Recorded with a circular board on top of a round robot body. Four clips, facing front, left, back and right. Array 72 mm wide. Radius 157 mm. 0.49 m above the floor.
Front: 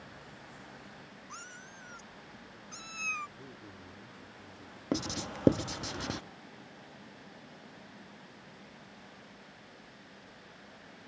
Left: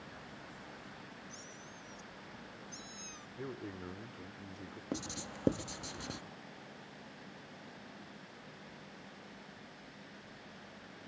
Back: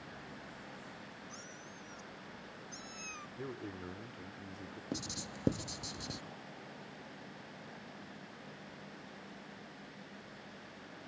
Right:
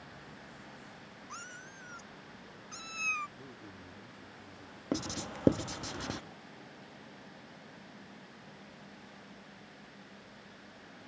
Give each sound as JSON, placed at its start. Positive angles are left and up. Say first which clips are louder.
{"t": 1.3, "sound": "a cat meowing", "louder": "right 5 dB, front 2 dB", "azimuth_deg": -60}
{"t": 3.4, "sound": "a man speaking", "louder": "left 6 dB, back 6 dB", "azimuth_deg": 135}
{"t": 4.9, "sound": "writing", "louder": "right 6 dB, front 10 dB", "azimuth_deg": -30}